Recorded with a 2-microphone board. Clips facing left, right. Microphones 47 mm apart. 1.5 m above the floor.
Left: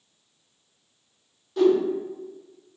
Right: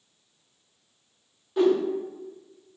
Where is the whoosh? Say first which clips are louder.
Left 2 dB; 15° right (ahead or behind), 0.5 m.